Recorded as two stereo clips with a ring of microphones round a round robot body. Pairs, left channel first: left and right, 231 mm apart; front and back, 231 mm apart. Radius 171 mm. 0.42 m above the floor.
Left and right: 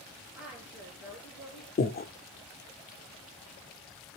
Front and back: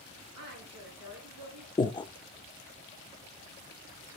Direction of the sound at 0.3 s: 175° right.